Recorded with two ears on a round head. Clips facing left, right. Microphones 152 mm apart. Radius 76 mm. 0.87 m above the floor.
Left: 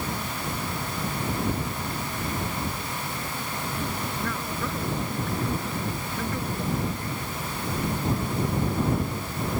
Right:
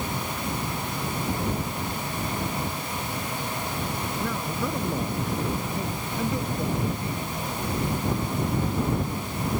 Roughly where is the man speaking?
Centre.